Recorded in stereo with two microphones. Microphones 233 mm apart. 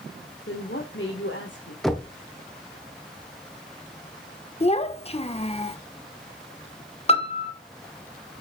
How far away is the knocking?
About 1.3 m.